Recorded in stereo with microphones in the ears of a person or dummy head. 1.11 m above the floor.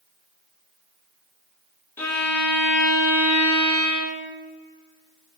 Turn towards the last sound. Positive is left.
turn(degrees=15)  # may be behind; listen again after turning